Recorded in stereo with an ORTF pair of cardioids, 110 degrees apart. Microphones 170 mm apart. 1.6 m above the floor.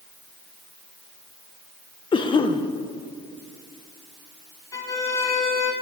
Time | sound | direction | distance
2.1 | a cough | 30° left | 1.2 m
4.7 | a violin | 20° left | 2.0 m